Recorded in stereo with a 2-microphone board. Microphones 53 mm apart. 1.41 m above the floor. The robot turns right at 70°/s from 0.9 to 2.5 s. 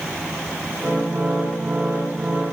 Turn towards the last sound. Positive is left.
No sound to turn to.